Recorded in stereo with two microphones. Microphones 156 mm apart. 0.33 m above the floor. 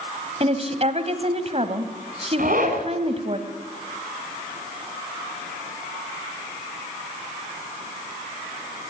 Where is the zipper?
65° right (ahead or behind), 3.5 m.